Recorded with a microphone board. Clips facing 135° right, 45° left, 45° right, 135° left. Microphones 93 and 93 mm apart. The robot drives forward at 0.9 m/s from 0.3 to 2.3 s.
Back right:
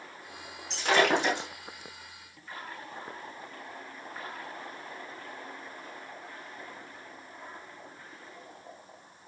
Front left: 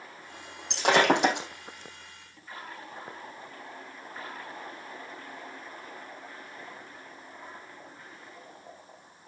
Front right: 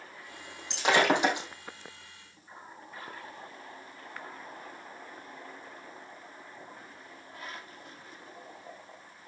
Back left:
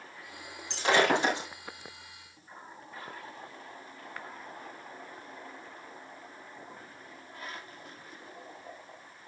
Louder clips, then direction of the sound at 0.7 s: Front left 2 dB, even; 25° left.